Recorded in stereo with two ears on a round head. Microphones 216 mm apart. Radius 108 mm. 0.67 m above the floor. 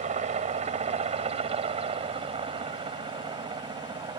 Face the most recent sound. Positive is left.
turn(degrees=-20)  # may be behind; listen again after turning